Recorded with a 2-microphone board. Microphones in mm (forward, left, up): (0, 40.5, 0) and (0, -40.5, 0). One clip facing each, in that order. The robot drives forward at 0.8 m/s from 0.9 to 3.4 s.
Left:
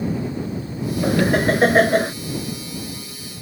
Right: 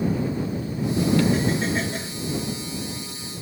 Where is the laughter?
65° left (ahead or behind); by 2.1 s 55° left (ahead or behind).